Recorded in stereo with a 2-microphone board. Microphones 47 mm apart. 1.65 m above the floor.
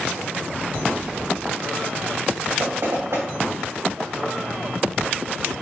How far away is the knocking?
About 2 m.